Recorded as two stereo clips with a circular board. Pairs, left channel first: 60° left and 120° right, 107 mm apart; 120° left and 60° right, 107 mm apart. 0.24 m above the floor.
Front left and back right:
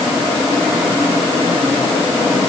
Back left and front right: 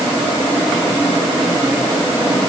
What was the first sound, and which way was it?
Only background noise.